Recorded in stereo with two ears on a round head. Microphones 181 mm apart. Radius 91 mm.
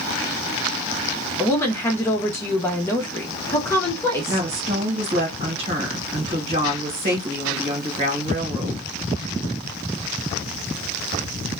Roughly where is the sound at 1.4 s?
Centre.